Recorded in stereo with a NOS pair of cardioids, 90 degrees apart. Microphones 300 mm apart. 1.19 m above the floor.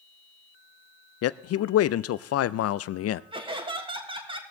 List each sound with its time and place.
1.2 s a man speaking: 55° left, 0.5 m
3.3 s laughter: 20° right, 2.5 m